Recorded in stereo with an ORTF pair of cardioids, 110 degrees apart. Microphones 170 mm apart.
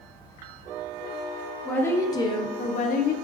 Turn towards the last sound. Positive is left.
turn(degrees=70)